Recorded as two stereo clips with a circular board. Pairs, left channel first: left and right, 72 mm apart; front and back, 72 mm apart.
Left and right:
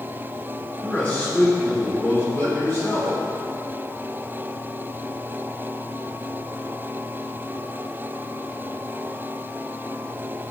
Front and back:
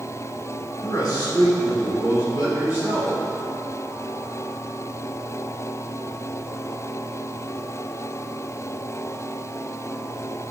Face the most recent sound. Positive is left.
turn(degrees=45)